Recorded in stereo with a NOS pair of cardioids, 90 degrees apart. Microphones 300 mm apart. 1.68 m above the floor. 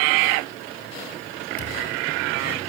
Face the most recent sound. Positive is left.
turn(degrees=30)